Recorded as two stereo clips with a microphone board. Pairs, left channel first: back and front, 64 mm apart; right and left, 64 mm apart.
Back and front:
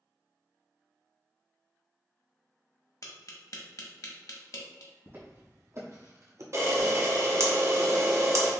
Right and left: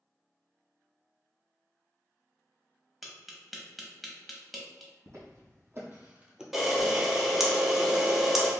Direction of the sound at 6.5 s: Straight ahead.